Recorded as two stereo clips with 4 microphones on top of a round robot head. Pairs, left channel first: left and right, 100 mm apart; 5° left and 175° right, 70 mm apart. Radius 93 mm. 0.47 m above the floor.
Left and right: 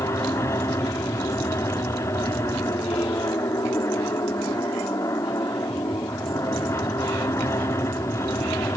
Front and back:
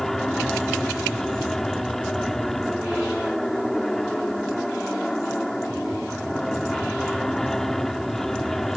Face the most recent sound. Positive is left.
turn(degrees=90)